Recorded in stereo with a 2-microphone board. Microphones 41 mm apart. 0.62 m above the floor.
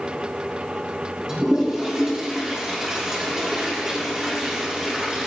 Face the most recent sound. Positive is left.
turn(degrees=-20)  # may be behind; listen again after turning